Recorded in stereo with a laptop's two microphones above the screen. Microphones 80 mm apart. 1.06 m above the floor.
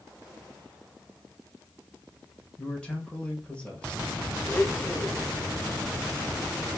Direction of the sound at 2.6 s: 15° left (ahead or behind).